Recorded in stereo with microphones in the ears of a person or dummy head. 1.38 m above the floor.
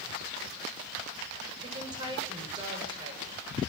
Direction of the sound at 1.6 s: 30° right (ahead or behind).